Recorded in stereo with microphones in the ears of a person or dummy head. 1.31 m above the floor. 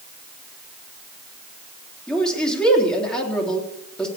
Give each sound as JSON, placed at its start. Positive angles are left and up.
{"t": 2.1, "sound": "a man speaking", "side_deg": 10, "distance_m": 3.0}